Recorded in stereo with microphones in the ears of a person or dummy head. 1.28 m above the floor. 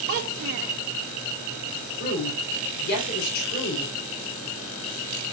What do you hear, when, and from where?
0.1 s a child speaking: 45° right (ahead or behind), 0.8 m
2.0 s a woman speaking: 55° left (ahead or behind), 3.5 m